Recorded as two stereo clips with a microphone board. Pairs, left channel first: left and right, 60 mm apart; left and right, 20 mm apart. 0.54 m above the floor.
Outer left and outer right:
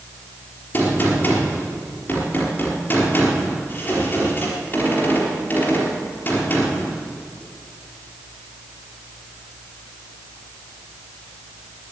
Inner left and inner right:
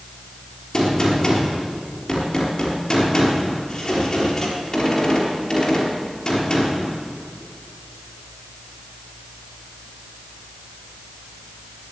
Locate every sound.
0.7 s a gunshot: 30° left (ahead or behind), 4 m